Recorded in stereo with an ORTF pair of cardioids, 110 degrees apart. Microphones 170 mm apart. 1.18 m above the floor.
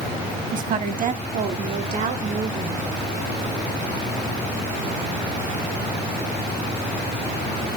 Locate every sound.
0.5 s a woman speaking: 50° right, 1.9 m; by 2.9 s 55° right, 3.5 m